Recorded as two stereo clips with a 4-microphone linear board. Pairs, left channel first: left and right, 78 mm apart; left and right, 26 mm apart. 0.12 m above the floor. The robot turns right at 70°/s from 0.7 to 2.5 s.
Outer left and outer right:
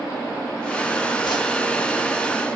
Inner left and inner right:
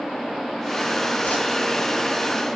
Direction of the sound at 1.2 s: 75° left (ahead or behind).